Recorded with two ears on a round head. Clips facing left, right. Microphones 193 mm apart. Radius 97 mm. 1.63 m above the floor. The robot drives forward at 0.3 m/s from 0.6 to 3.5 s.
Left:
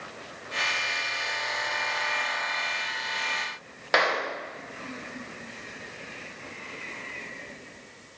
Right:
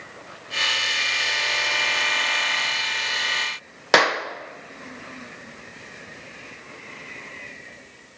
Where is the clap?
60° right (ahead or behind), 1.2 m.